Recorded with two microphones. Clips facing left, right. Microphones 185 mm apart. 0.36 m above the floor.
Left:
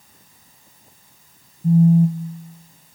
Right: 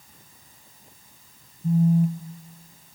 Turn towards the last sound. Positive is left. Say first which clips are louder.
# left 6 dB
turn(degrees=30)  # may be behind; listen again after turning